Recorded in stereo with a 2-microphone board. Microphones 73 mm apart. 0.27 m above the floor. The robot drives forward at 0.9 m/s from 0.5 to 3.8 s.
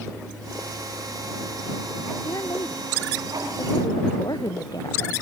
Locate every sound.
2.2 s a woman speaking: 60° left (ahead or behind); by 5.1 s 65° left (ahead or behind)